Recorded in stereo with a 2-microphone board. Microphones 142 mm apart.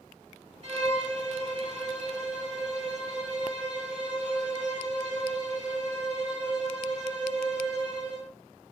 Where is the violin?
45° right (ahead or behind), 2 m.